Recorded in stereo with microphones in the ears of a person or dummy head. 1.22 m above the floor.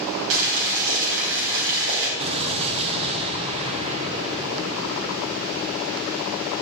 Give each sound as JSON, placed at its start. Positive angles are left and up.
{"t": 0.3, "sound": "boiling", "side_deg": -75, "distance_m": 4.0}
{"t": 2.2, "sound": "an explosion", "side_deg": -35, "distance_m": 1.5}